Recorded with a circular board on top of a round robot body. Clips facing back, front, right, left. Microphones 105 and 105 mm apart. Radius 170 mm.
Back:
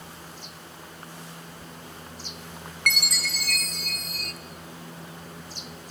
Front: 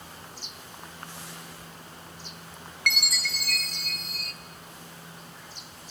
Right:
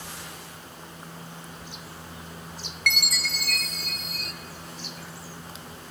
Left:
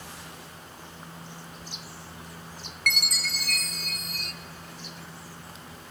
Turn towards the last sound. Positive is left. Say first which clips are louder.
# back 2 dB, right 2 dB
turn(degrees=135)